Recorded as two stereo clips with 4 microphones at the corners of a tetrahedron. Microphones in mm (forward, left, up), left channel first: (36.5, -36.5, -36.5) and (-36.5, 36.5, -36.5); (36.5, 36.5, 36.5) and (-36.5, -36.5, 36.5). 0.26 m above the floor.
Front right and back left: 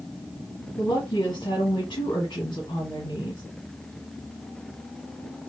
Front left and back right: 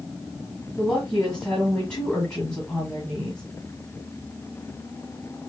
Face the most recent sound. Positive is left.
turn(degrees=-25)